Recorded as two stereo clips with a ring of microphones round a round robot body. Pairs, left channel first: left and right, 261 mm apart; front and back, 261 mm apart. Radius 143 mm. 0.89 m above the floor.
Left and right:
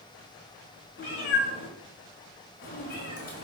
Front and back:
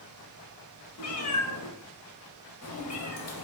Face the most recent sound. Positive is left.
turn(degrees=30)